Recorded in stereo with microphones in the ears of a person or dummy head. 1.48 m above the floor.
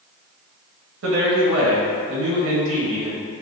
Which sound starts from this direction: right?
A man speaking, at 1.0 s.